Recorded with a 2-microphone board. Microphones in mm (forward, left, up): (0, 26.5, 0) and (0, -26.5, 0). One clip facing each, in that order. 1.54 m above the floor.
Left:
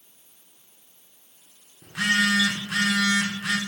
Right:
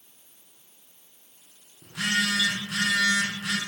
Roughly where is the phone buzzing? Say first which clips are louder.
Left 4 dB; left.